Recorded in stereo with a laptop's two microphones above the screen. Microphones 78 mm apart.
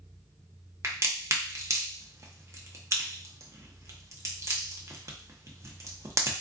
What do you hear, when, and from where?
0.8 s a crack: 35° right (ahead or behind), 0.8 m